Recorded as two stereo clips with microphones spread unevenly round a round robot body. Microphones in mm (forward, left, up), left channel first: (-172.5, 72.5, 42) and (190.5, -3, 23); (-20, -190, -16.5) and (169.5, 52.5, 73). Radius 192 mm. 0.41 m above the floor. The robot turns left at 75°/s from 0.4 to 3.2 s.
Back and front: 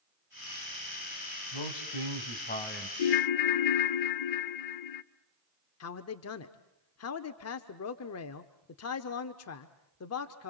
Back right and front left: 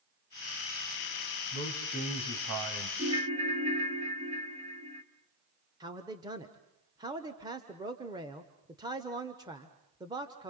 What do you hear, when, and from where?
1.5 s a man speaking: 175° left, 2.5 m; by 2.9 s 75° left, 2.5 m
3.0 s a ringtone: 145° left, 0.7 m; by 5.0 s 130° left, 0.7 m
5.8 s a man speaking: 145° left, 1.0 m